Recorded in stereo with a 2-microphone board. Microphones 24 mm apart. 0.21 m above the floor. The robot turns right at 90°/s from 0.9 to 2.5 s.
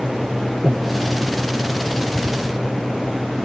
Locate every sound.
0.6 s breathing: 50° right (ahead or behind); by 0.9 s 45° right (ahead or behind)